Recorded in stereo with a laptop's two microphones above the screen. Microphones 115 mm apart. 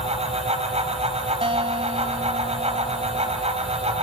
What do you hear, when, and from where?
0.0 s a fan: 70° right (ahead or behind), 5 m
1.4 s a guitar: 55° right (ahead or behind), 2 m